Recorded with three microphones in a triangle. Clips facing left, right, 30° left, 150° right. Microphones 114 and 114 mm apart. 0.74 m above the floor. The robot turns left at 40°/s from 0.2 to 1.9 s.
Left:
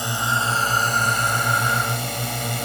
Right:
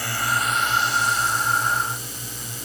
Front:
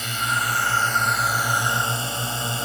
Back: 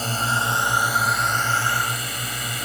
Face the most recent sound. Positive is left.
turn(degrees=90)